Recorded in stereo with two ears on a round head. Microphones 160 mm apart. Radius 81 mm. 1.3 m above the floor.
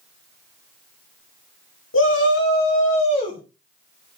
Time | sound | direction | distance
1.9 | a shout | 75° left (ahead or behind) | 2.5 m